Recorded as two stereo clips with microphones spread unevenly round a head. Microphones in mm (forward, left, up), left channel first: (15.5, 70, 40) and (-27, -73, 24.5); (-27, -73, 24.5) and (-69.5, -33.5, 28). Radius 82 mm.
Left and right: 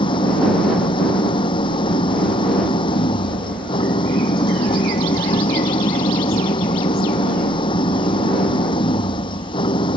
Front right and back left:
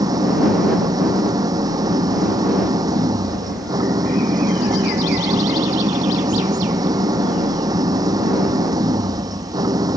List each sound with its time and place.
0.0 s an engine running: 135° left